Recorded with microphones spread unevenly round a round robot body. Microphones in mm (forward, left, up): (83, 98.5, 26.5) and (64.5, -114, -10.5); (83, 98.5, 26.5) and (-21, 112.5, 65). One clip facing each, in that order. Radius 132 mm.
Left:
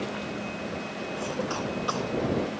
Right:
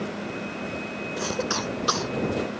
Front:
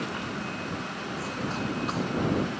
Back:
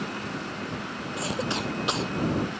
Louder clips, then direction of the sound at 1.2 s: Right 3 dB, back 3 dB; 150° right.